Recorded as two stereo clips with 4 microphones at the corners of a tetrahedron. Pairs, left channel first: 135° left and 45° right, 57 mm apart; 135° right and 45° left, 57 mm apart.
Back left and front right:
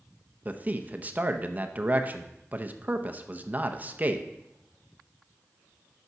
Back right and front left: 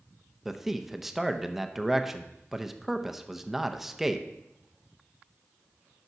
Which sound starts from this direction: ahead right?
A man speaking, at 0.5 s.